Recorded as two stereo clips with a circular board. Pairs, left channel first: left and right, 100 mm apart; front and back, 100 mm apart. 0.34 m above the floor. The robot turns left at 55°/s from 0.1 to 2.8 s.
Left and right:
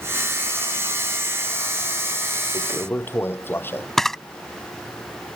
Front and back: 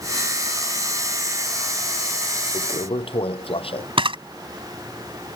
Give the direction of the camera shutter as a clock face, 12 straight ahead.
6 o'clock.